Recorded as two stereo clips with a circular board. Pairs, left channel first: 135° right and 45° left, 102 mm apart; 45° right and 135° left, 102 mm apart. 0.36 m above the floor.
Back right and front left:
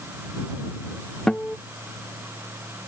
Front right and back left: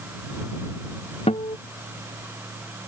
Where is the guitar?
50° right.